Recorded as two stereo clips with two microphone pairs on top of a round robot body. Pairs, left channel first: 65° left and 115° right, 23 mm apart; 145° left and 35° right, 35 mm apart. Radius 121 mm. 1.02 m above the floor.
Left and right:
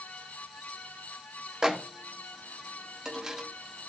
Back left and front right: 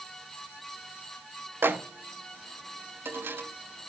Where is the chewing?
I don't hear chewing.